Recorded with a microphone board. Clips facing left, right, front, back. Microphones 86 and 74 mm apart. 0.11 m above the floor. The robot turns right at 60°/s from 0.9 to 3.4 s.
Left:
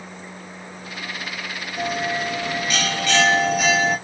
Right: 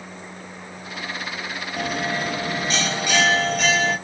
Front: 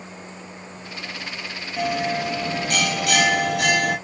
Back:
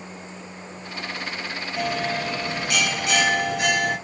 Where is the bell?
95° right, 0.9 m; by 4.0 s 5° left, 0.9 m.